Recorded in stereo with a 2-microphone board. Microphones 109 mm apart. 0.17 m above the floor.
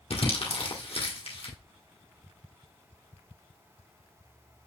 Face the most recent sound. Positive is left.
turn(degrees=60)  # may be behind; listen again after turning